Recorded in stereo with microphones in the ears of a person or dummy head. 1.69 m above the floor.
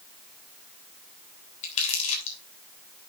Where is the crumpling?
40° left (ahead or behind), 3.5 m.